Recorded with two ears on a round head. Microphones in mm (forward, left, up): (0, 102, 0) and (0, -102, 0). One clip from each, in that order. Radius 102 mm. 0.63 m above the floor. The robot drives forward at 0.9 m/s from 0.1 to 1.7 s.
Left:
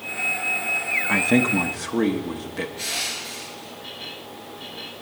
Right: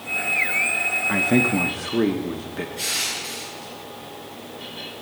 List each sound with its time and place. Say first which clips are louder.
1.1 s a man speaking: left 2 dB; 15° left (ahead or behind), 0.7 m
2.8 s crushing: right 4 dB; 50° right (ahead or behind), 9 m